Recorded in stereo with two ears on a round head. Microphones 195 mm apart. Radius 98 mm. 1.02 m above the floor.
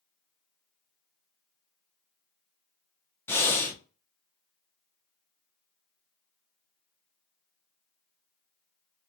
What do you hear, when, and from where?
3.3 s breathing: 10° left (ahead or behind), 0.6 m